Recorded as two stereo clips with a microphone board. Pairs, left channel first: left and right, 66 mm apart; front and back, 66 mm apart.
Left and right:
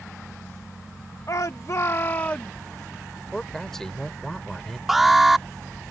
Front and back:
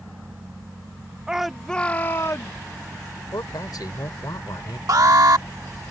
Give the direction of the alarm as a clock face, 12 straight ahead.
6 o'clock.